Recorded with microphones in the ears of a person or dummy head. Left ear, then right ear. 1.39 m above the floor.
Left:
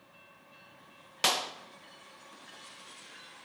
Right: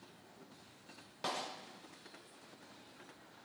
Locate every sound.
1.2 s a clap: 70° left (ahead or behind), 1.2 m